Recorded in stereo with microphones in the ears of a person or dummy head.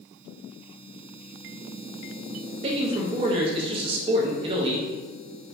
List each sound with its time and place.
2.6 s a man speaking: 30° right (ahead or behind), 0.5 m